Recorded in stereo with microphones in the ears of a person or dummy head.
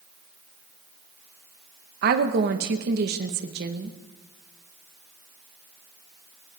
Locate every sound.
2.0 s a woman speaking: 55° right (ahead or behind), 1.2 m